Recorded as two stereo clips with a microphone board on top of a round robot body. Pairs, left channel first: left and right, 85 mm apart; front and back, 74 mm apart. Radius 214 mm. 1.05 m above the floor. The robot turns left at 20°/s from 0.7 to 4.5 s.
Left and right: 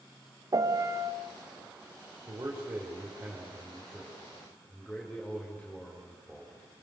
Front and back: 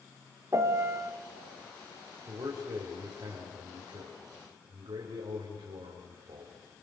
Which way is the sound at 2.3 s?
150° right.